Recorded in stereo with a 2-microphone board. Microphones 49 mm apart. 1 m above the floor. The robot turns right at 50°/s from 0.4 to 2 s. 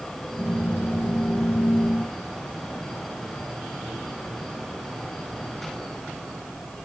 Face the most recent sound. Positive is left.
No sound to turn to.